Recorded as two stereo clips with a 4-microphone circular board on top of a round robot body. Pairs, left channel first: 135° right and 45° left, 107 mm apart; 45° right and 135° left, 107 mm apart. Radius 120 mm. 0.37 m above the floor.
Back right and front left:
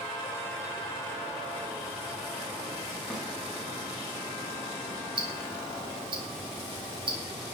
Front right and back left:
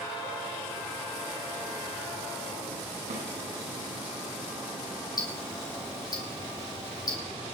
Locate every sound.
3.1 s a snare drum: 130° left, 9 m
5.2 s ticking: 5° left, 3.5 m